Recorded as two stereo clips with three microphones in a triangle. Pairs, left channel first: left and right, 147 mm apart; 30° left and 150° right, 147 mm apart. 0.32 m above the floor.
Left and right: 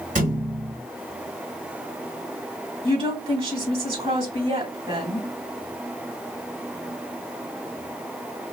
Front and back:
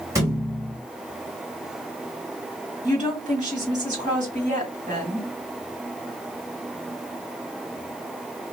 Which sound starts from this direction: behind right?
A woman speaking, at 2.8 s.